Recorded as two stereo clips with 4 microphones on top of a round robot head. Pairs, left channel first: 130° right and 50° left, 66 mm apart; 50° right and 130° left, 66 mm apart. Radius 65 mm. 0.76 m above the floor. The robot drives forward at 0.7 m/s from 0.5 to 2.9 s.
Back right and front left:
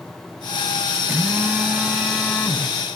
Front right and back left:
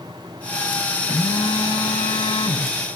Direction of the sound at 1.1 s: 20° right.